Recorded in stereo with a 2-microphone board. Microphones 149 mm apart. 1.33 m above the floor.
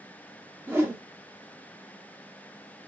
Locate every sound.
0.7 s a whoosh: 15° right (ahead or behind), 1.0 m